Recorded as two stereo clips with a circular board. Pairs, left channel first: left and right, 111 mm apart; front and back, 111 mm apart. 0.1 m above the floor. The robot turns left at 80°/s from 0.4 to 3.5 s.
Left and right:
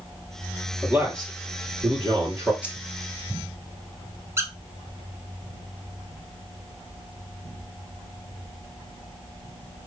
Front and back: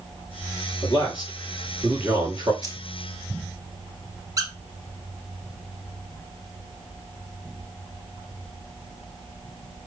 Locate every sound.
0.8 s a man speaking: 15° right, 2.5 m; by 2.5 s 150° right, 2.5 m
2.6 s keys jangling: 15° right, 1.1 m; by 2.8 s 30° right, 1.1 m
4.4 s a squeak: 145° right, 0.9 m